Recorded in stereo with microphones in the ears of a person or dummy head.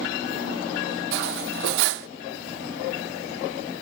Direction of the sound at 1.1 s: 60° right (ahead or behind).